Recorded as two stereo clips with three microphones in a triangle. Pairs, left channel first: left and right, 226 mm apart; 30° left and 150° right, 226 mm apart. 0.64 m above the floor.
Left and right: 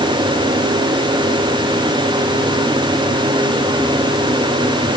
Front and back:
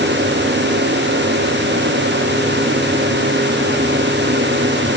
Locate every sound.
Only background noise.